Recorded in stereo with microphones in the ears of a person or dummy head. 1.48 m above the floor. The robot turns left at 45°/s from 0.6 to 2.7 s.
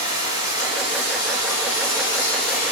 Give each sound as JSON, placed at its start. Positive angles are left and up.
{"t": 0.0, "sound": "running water", "azimuth_deg": 135, "distance_m": 4.0}